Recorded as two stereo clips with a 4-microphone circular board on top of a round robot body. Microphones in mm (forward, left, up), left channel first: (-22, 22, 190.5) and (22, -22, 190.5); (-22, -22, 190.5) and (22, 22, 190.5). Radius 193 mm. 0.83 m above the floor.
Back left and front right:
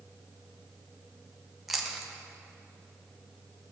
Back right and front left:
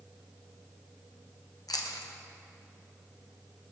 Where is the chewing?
130° right, 0.8 m.